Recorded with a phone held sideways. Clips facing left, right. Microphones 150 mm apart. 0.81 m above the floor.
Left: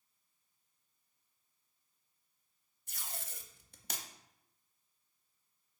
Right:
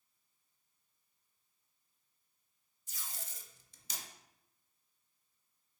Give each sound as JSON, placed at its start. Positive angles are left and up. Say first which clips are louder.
{"t": 2.9, "sound": "tape being pulled", "louder": "left 3 dB", "side_deg": 65, "distance_m": 0.6}